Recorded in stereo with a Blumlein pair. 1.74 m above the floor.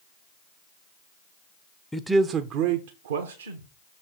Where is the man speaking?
5° left, 0.5 m; by 3.7 s 70° right, 1.2 m.